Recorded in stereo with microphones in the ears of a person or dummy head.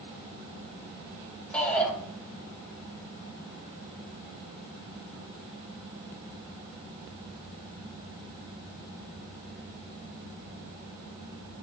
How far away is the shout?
About 2 m.